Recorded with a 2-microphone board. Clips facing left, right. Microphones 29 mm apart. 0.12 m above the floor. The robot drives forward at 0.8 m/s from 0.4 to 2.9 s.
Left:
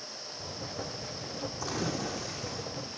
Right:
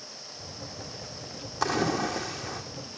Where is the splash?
80° right, 4 m; by 2.6 s 70° right (ahead or behind), 4.5 m.